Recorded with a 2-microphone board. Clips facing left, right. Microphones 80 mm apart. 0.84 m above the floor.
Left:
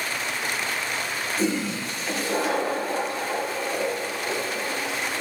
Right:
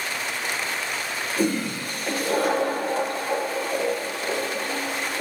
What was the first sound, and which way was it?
A toilet flushing, 55° right (ahead or behind).